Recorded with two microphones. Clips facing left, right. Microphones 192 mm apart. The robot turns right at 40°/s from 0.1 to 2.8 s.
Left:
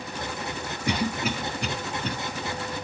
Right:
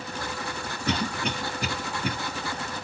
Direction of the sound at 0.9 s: 15° left (ahead or behind).